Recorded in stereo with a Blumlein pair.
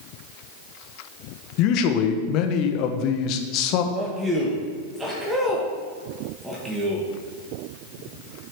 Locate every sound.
1.6 s a man speaking: 40° left, 1.1 m
3.9 s a man speaking: 10° right, 1.7 m